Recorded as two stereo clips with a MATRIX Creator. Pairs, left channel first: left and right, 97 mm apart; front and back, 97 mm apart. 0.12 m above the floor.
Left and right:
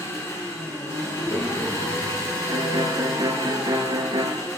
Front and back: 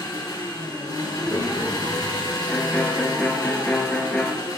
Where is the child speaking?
120° left, 2.5 m.